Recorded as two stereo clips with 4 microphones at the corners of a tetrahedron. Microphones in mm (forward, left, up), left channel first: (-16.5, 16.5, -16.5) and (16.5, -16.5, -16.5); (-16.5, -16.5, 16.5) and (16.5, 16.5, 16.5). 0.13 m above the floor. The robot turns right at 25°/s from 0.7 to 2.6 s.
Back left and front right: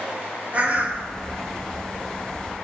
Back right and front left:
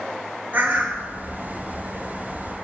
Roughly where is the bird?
Ahead.